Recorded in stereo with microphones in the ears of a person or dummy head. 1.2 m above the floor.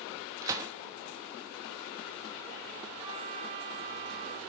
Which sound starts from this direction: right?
A trumpet, at 3.0 s.